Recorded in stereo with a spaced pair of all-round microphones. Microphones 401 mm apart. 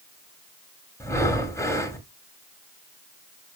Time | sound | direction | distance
1.0 | breathing | 5° left (ahead or behind) | 1.9 m